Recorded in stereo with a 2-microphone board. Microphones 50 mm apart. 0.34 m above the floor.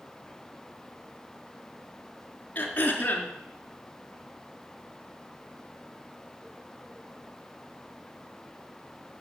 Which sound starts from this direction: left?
Throat clearing, at 2.5 s.